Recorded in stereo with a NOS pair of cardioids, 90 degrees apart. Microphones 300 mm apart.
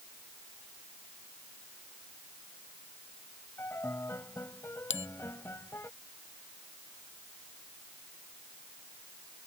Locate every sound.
3.6 s a piano: 10° left
4.9 s a bell: 40° left